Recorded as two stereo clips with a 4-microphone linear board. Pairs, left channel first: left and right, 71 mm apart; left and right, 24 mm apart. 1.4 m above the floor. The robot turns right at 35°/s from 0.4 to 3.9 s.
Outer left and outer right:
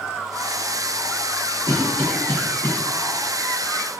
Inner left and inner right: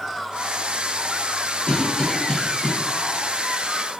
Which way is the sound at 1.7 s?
55° left (ahead or behind).